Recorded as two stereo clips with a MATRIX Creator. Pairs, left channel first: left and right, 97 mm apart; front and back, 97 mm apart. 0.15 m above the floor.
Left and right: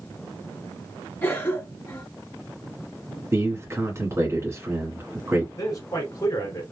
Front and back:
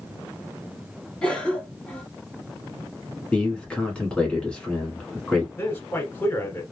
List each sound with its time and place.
1.2 s a cough: 65° left, 1.5 m
3.3 s a man speaking: 65° right, 1.3 m
5.6 s a man speaking: 60° left, 1.5 m